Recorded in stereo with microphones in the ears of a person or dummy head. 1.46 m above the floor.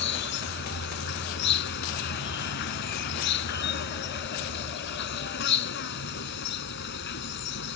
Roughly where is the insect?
Left.